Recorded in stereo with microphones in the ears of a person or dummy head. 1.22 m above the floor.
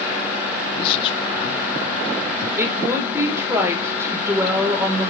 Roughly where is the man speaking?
Left.